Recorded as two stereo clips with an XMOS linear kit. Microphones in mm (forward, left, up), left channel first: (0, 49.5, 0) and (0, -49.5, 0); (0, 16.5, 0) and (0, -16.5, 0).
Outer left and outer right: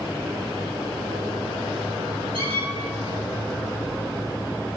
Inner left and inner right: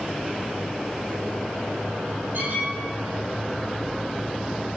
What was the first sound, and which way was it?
A squeak, 60° right (ahead or behind).